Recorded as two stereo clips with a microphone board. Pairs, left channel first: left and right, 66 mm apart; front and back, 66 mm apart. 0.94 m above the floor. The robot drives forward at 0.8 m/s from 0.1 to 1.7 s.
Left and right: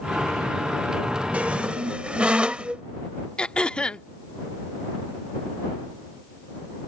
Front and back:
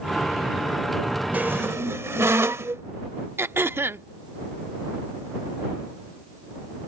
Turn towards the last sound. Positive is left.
turn(degrees=155)